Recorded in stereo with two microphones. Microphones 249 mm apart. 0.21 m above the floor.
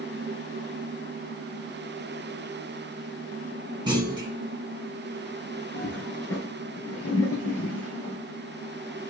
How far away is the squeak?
I don't hear a squeak.